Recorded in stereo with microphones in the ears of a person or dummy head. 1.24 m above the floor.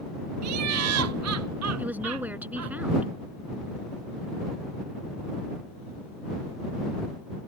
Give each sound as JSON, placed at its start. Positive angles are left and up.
{"t": 0.4, "sound": "laughter", "side_deg": -85}
{"t": 1.8, "sound": "a woman speaking", "side_deg": -10}